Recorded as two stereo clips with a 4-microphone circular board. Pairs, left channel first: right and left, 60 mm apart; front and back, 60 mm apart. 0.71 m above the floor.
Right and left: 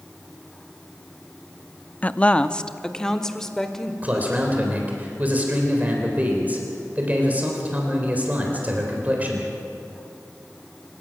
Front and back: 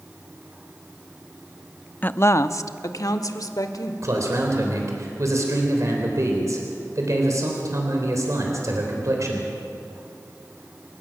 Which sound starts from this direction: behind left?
A man speaking, at 4.0 s.